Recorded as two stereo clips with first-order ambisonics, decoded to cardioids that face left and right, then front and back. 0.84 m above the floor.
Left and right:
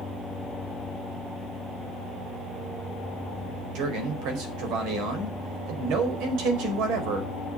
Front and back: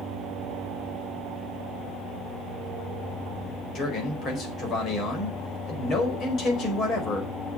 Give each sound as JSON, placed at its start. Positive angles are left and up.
{"t": 3.8, "sound": "a man speaking", "azimuth_deg": -60, "distance_m": 4.5}